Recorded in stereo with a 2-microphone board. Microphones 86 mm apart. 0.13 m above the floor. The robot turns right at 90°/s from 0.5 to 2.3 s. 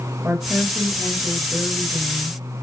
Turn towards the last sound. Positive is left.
turn(degrees=20)  # may be behind; listen again after turning